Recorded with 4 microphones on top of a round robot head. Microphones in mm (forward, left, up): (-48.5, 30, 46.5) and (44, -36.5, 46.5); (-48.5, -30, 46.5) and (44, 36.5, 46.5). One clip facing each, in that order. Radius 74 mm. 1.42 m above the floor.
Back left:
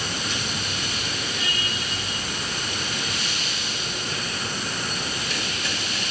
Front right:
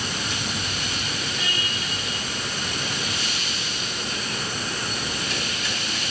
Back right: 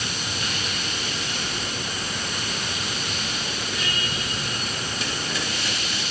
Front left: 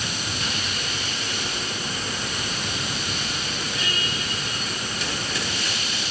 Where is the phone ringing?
No phone ringing in this recording.